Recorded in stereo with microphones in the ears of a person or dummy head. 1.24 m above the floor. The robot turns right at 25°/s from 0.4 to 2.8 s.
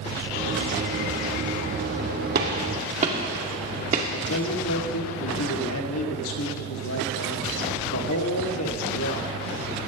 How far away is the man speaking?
About 2.5 m.